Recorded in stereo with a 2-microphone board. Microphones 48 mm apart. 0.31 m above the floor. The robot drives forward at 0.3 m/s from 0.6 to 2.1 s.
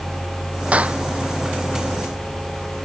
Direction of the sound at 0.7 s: 30° right (ahead or behind).